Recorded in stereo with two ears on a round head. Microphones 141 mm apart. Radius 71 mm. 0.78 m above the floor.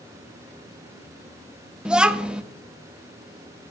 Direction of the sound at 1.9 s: 5° right (ahead or behind).